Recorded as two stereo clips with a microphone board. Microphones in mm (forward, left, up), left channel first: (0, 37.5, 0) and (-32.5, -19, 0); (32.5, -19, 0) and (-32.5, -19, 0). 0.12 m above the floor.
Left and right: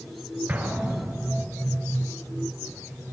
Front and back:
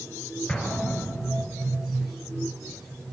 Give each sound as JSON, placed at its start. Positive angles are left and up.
{"t": 0.5, "sound": "an explosion", "azimuth_deg": -70, "distance_m": 2.5}